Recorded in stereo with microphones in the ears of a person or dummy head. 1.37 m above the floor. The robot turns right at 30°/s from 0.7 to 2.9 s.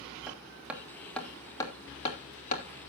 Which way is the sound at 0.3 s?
5° right (ahead or behind).